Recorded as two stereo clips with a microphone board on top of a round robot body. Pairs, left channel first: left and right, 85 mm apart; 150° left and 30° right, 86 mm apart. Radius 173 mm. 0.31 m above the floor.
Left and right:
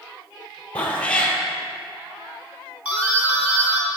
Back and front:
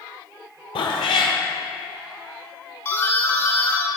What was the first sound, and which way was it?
A cat meowing, 165° left.